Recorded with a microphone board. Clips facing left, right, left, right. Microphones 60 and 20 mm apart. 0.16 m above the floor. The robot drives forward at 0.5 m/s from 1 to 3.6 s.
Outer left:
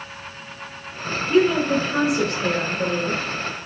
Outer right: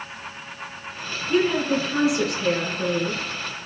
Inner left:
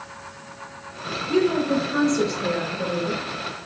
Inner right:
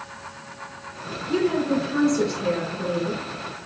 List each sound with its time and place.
1.3 s a woman speaking: 5° right (ahead or behind), 2.0 m